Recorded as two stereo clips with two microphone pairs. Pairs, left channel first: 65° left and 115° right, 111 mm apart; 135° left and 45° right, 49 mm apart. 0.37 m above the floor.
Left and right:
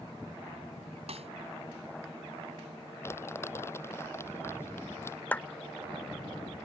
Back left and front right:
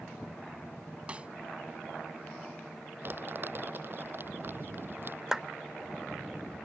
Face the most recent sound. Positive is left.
turn(degrees=15)